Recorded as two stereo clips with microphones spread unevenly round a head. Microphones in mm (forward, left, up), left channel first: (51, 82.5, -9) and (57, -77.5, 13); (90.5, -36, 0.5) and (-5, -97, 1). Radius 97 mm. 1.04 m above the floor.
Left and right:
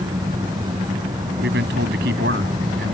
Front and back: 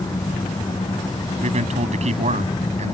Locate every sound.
0.0 s an engine running: 25° right
1.4 s a man speaking: 130° right